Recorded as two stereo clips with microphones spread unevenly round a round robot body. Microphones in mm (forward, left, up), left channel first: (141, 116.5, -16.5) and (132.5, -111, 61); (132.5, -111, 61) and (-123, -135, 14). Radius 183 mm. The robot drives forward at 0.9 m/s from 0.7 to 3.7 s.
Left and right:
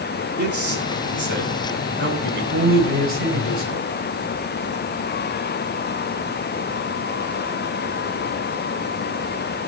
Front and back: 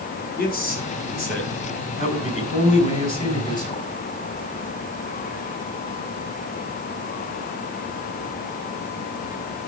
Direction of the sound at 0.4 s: 50° right.